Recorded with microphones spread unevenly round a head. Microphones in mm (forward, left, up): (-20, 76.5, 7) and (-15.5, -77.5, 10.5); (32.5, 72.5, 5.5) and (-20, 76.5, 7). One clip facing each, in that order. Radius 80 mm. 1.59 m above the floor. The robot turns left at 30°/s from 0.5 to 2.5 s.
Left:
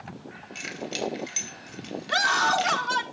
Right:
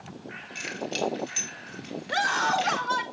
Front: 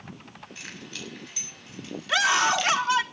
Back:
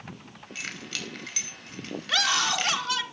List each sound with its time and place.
0.6 s keys jangling: 175° right, 5.5 m; by 2.8 s 125° left, 5.5 m
2.1 s a scream: 65° left, 3.5 m; by 3.0 s 55° left, 3.5 m